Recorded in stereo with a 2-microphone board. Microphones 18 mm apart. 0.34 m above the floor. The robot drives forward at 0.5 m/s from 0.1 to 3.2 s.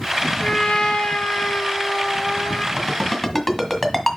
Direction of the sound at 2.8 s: 25° left (ahead or behind).